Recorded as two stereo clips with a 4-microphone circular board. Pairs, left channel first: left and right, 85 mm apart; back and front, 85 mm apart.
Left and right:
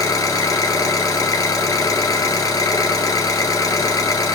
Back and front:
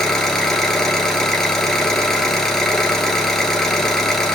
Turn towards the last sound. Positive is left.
turn(degrees=95)